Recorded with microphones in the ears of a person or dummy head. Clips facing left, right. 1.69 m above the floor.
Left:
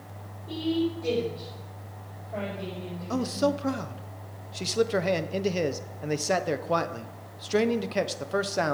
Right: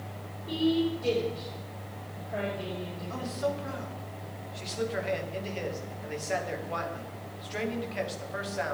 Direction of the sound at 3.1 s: 65° left (ahead or behind).